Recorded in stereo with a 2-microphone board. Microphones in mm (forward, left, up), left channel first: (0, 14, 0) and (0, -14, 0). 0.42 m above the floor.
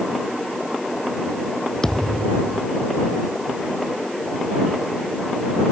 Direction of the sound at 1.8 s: 20° left (ahead or behind).